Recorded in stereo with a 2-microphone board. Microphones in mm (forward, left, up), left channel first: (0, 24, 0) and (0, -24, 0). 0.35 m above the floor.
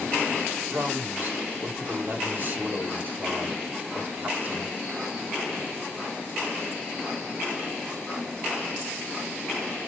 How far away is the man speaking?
About 2 m.